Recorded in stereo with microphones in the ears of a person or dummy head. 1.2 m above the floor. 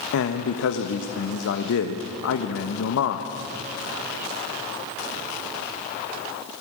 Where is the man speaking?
70° left (ahead or behind), 1.1 m.